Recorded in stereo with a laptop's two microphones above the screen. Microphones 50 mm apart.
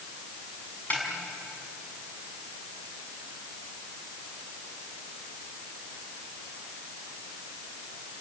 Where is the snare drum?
35° left (ahead or behind), 5.5 m.